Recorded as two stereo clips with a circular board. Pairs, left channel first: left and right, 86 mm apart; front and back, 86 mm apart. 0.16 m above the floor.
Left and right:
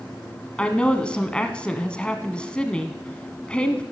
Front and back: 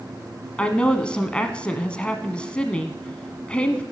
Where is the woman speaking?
40° left, 1.0 m.